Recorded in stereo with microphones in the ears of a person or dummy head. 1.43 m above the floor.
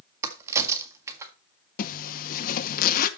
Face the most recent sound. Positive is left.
turn(degrees=45)  # may be behind; listen again after turning